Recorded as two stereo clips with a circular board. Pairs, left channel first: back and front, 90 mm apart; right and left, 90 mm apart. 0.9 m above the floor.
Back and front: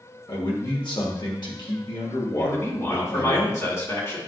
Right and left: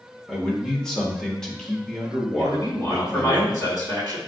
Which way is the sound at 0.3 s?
170° right.